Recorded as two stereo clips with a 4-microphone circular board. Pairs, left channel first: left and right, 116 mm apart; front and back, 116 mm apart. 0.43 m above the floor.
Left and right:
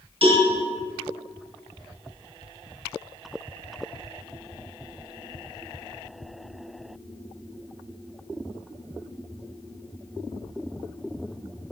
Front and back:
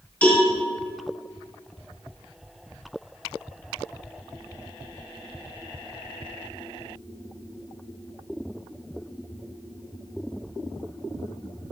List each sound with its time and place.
0.2 s a cowbell: 75° right, 1.9 m